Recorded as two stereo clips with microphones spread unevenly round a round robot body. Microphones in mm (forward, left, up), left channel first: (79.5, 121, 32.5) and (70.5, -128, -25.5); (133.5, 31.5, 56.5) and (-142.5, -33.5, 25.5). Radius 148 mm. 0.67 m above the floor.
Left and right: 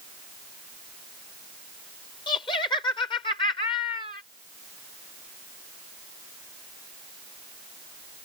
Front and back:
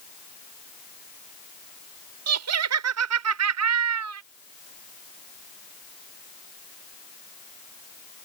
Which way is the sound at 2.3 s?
165° left.